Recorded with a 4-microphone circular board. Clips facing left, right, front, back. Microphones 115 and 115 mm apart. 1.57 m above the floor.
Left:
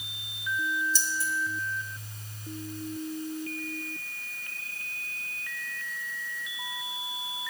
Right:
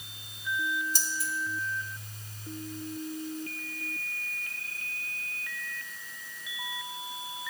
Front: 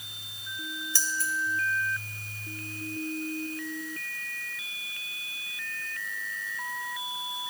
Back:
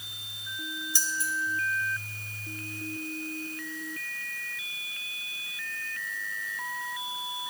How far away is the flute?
No flute in this recording.